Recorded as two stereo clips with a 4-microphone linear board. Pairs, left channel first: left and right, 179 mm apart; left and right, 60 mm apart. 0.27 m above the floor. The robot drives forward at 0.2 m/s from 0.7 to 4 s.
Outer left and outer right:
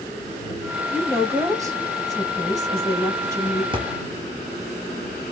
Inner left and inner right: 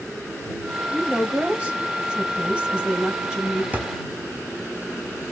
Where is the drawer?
30° right (ahead or behind), 0.6 m.